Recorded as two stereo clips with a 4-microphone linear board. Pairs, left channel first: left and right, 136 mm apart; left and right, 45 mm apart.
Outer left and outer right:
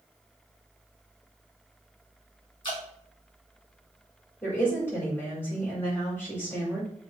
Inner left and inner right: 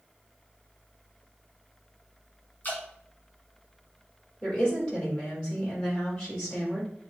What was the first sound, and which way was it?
Dripping, 35° left (ahead or behind).